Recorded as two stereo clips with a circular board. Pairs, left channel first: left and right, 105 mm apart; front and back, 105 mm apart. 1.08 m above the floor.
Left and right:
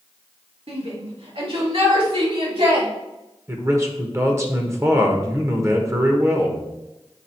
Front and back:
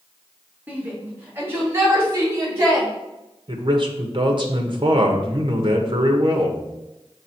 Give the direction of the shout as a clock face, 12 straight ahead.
4 o'clock.